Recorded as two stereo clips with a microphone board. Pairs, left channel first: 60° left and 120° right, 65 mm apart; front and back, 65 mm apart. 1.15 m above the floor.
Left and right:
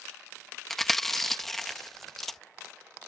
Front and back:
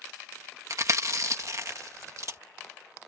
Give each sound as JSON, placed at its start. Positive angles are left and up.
{"t": 0.7, "sound": "chewing", "azimuth_deg": 145}